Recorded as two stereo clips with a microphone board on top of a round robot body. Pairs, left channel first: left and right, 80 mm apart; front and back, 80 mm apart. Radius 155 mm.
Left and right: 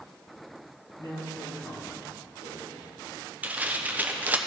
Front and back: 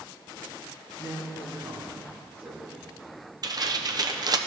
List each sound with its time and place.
1.0 s a man speaking: 120° left, 2.5 m; by 3.0 s 110° left, 3.5 m
3.4 s tearing paper: 155° right, 0.9 m